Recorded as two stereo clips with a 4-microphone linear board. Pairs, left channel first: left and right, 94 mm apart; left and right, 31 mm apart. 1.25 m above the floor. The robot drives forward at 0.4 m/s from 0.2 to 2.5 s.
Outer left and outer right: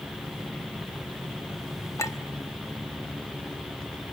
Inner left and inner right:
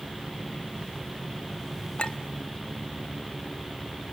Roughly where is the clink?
Left.